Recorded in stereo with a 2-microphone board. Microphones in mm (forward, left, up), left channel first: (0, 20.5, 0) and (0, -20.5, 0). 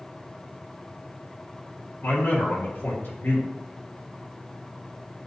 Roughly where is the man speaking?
Left.